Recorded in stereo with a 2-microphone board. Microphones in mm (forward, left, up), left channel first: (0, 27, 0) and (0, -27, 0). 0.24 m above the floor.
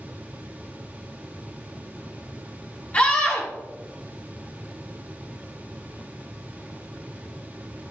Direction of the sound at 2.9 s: 30° left (ahead or behind).